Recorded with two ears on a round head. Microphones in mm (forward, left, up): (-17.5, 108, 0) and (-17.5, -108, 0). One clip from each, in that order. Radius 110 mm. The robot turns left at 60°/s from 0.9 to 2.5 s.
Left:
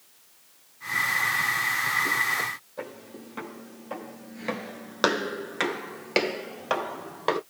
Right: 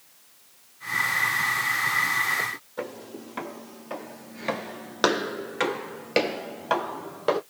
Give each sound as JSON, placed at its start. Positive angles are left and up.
{"t": 2.8, "sound": "footsteps", "side_deg": -15, "distance_m": 1.8}